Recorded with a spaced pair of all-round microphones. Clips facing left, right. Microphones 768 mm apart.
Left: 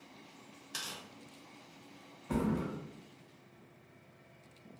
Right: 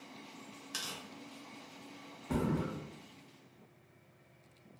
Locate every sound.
0.7 s tearing paper: 25° right (ahead or behind), 0.5 m
2.3 s a thud: 10° left (ahead or behind), 0.6 m